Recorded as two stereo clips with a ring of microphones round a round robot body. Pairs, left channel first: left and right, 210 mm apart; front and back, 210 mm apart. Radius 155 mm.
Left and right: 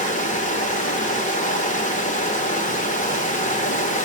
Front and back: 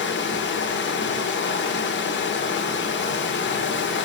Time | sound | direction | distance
0.0 | running water | 35° left | 1.6 m